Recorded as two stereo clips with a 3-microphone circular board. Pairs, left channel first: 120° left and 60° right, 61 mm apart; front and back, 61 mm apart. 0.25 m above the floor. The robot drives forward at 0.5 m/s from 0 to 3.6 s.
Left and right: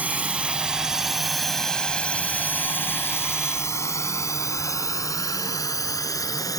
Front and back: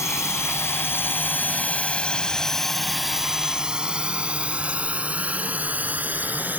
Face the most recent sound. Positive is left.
turn(degrees=120)